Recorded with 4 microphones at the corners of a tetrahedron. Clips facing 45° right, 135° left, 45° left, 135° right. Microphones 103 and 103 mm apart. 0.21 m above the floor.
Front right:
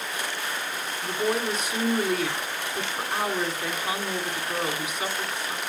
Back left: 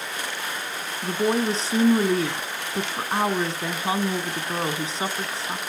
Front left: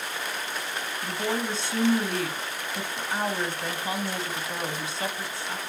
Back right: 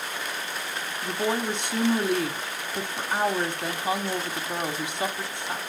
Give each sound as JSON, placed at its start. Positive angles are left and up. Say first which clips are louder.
{"t": 1.0, "sound": "a woman speaking", "louder": "back left 4 dB, back right 3 dB", "azimuth_deg": 165, "distance_m": 1.2}